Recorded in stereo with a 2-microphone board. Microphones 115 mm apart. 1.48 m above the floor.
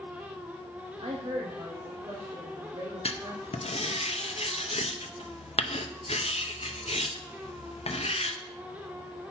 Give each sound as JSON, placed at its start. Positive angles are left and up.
{"t": 1.0, "sound": "a woman speaking", "side_deg": -70, "distance_m": 0.6}
{"t": 3.0, "sound": "writing", "side_deg": 65, "distance_m": 0.6}